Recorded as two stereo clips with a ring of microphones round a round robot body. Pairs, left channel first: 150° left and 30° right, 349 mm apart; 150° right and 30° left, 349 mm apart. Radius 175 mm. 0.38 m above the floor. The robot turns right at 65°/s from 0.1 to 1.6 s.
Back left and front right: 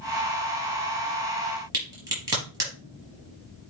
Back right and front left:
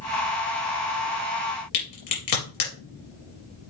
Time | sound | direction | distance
1.7 | a crack | 110° right | 4 m